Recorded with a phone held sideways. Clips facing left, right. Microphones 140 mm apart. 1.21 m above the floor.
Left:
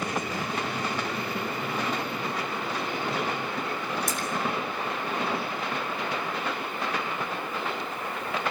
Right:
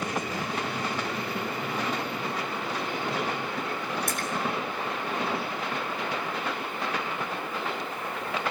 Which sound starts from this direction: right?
A splash, at 4.1 s.